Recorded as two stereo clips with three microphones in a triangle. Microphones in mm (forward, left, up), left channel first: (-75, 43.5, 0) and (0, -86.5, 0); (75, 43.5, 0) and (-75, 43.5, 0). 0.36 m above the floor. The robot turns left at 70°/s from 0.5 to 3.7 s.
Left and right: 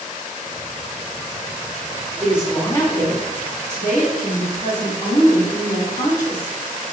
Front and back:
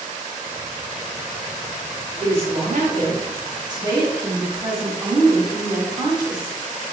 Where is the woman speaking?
130° right, 1.8 m; by 6.8 s 125° left, 1.8 m.